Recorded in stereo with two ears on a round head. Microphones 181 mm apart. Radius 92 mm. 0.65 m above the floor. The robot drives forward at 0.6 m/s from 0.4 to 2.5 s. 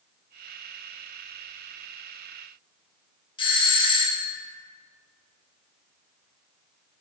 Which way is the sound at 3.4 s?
25° left (ahead or behind).